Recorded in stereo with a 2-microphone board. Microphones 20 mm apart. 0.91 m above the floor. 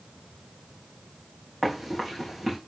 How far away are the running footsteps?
About 3.5 m.